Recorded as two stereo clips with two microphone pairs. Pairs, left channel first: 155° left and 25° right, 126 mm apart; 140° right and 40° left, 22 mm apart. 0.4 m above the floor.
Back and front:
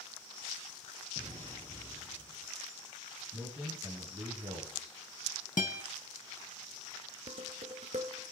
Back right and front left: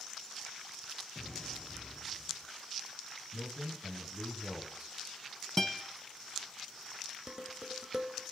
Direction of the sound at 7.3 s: 15° right.